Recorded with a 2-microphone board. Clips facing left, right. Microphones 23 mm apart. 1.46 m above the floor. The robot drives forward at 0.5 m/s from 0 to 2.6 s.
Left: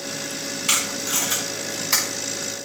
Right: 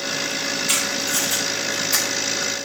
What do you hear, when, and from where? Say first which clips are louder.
0.7 s tape being pulled: left 2 dB; 85° left, 5 m